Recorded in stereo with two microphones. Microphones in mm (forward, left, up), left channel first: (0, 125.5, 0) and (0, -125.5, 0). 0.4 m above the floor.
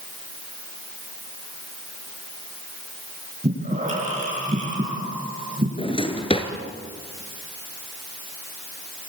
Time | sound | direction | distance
3.4 | breathing | 30° right (ahead or behind) | 6 m
5.8 | a drawer | 20° left (ahead or behind) | 2.5 m